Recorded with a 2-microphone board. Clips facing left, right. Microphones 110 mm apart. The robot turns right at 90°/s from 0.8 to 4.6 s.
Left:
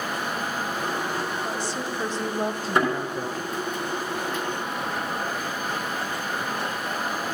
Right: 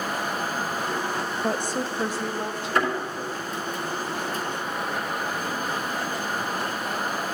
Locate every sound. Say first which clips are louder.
1.4 s a woman speaking: right 3 dB; 70° right, 0.7 m; by 3.8 s 135° left, 0.7 m
2.8 s a thud: left 2 dB; 20° left (ahead or behind), 3.5 m; by 2.9 s 35° left (ahead or behind), 3.5 m